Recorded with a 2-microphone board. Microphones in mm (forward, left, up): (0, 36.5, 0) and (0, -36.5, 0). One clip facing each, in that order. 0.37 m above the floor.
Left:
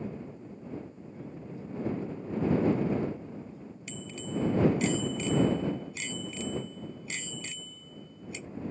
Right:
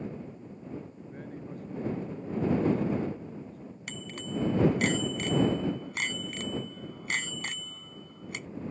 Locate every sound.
1.0 s a man speaking: 55° right (ahead or behind)
3.9 s a bicycle bell: 60° right (ahead or behind)